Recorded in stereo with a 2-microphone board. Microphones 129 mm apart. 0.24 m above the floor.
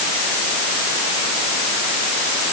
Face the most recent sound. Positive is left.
No sound to turn to.